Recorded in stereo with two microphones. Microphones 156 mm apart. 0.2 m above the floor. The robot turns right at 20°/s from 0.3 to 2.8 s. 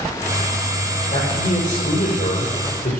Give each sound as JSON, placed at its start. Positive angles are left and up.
{"t": 1.1, "sound": "a man speaking", "azimuth_deg": 45, "distance_m": 6.0}